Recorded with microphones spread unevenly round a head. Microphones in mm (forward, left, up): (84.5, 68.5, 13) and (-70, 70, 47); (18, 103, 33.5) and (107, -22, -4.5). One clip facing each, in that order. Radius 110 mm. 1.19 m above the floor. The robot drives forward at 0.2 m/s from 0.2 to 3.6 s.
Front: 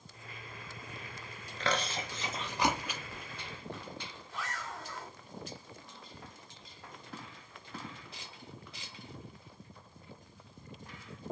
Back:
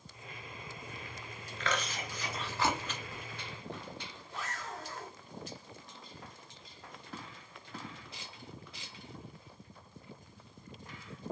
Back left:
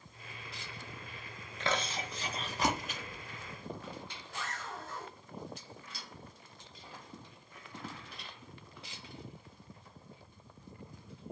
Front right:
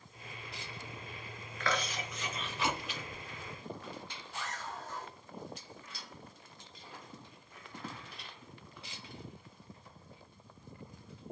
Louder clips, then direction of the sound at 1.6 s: Front 2 dB, back left 1 dB; 60° left.